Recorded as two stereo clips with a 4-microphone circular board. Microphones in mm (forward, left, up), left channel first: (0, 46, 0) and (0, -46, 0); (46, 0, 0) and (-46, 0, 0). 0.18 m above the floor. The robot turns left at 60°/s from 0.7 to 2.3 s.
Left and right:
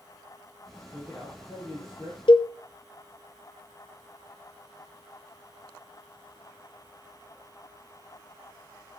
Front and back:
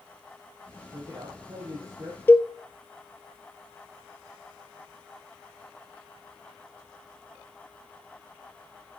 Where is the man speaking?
170° right, 6 m; by 2.2 s 115° left, 6 m.